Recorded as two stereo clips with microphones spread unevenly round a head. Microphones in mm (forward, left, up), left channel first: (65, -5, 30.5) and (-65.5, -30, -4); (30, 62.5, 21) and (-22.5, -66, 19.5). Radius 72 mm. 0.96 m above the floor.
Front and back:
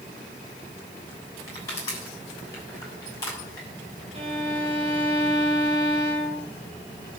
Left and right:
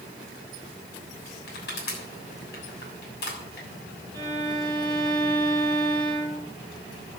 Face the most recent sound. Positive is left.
turn(degrees=135)